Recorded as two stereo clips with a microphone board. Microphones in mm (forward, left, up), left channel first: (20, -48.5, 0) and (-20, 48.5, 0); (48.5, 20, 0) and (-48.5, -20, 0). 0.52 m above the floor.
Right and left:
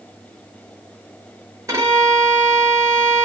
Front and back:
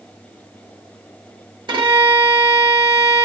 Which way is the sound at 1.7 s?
170° left.